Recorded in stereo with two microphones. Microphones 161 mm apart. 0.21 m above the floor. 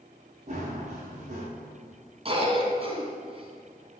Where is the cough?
35° right (ahead or behind), 1.6 m.